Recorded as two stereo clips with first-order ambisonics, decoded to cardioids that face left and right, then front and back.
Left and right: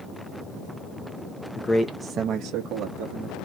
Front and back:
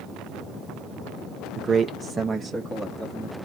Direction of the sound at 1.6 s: 130° left.